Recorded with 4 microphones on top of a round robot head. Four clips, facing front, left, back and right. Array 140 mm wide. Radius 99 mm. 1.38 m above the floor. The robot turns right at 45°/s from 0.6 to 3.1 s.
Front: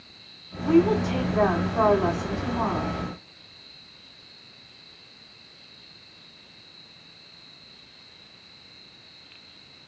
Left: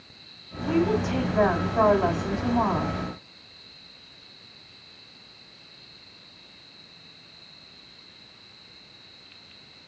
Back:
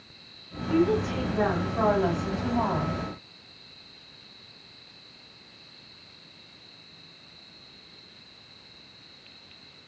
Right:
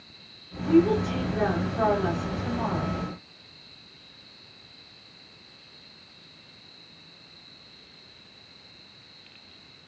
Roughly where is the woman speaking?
Ahead left.